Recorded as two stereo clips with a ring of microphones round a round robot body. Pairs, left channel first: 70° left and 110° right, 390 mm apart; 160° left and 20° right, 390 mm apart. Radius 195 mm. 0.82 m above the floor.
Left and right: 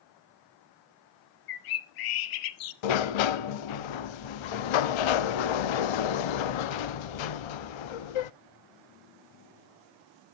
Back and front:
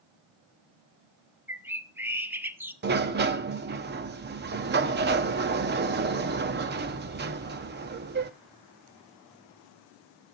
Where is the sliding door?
45° left, 0.6 m.